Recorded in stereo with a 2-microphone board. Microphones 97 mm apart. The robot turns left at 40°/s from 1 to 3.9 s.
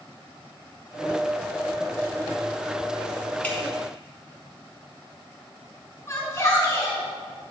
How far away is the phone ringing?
I don't hear a phone ringing.